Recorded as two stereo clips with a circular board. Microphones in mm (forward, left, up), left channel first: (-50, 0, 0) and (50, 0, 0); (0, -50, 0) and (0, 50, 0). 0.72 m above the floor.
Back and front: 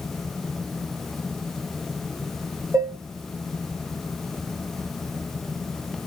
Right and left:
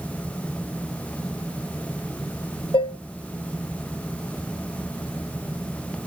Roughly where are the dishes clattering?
Ahead right.